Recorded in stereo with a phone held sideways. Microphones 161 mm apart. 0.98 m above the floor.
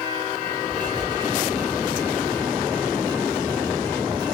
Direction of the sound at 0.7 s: 25° right (ahead or behind).